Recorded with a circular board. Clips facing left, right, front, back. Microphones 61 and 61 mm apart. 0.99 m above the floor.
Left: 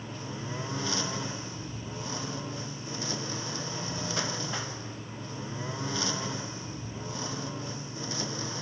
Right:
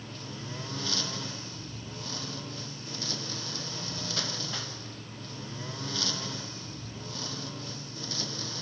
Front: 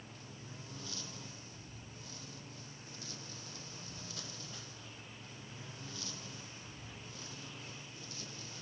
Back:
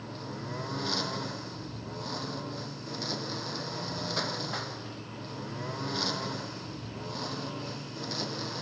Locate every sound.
0.0 s a lawn mower: 160° left